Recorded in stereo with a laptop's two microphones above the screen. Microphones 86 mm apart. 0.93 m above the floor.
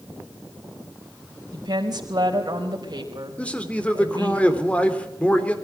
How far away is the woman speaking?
About 4.5 m.